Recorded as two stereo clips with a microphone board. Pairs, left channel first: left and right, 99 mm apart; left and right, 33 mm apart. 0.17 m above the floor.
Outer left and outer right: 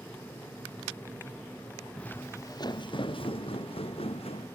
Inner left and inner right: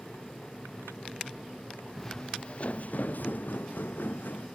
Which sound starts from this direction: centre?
Footsteps, at 2.0 s.